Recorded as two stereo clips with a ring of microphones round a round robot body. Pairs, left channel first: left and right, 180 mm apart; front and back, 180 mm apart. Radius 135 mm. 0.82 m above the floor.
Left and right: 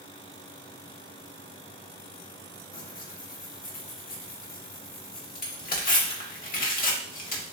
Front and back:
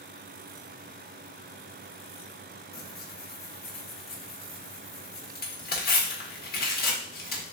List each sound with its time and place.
2.7 s tearing paper: 40° left, 1.0 m